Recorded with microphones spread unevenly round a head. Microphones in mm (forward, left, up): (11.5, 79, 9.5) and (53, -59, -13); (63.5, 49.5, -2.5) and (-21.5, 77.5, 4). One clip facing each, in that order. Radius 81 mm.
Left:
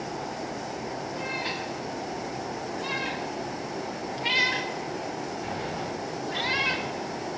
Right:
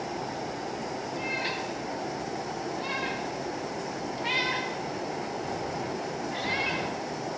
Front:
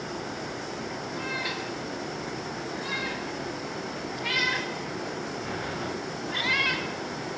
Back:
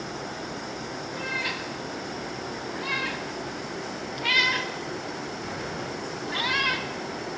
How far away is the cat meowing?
About 3.5 m.